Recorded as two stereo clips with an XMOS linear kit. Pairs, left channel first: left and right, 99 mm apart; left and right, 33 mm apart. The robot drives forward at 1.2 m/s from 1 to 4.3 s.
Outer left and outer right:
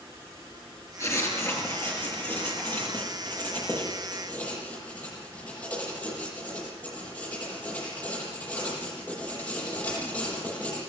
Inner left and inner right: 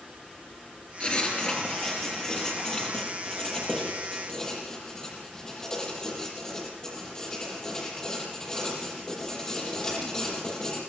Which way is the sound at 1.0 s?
30° left (ahead or behind).